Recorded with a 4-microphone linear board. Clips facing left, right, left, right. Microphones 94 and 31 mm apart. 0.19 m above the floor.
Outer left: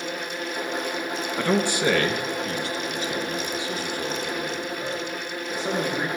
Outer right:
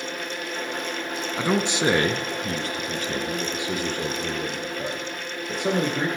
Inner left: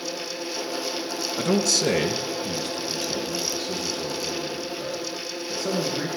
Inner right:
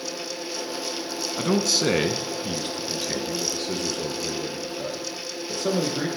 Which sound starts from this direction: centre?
A man speaking, at 1.4 s.